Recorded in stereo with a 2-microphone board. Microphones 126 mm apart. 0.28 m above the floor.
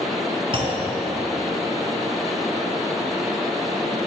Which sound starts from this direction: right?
A clunk, at 0.5 s.